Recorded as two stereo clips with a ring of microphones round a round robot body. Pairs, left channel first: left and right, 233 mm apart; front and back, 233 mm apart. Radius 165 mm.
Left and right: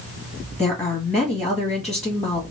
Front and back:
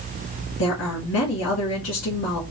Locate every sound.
0.6 s a woman speaking: 5° left, 1.3 m